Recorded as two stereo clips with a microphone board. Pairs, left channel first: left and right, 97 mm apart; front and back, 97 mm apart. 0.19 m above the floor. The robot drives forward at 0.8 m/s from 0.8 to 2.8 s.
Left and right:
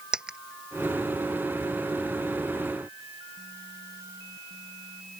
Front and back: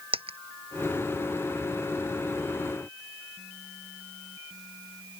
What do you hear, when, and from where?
0.1 s a dropped coin: 170° right